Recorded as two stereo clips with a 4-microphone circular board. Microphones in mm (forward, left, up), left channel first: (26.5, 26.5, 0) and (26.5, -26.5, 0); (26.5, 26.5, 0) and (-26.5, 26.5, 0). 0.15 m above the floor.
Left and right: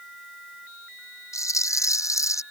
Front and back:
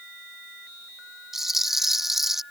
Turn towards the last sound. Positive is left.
turn(degrees=95)